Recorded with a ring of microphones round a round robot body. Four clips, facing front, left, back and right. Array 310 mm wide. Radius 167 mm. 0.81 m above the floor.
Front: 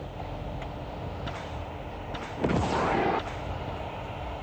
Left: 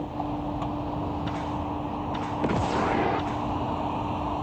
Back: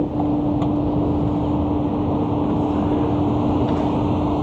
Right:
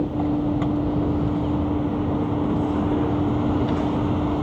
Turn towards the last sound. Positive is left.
turn(degrees=-155)